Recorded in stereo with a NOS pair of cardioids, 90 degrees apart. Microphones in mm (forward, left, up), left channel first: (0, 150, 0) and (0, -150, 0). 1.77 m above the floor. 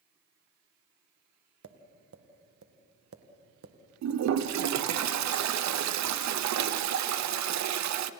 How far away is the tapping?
About 2 m.